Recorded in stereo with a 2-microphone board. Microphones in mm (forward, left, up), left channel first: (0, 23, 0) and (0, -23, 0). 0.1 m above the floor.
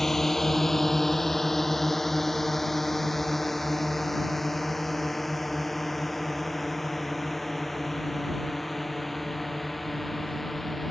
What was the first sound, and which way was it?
A drone, 10° left (ahead or behind).